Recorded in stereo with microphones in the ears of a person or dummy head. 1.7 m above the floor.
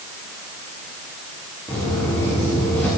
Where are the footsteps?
10° left (ahead or behind), 5 m.